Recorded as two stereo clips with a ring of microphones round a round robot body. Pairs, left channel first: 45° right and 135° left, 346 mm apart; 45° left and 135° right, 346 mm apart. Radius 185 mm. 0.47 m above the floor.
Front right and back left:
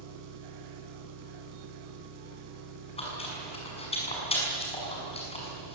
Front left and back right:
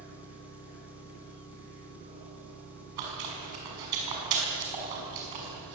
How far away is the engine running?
About 4.5 m.